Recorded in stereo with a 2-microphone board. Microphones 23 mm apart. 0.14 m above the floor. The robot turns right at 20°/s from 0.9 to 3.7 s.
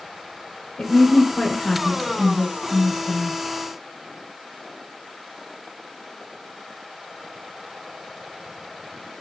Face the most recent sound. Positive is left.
turn(degrees=125)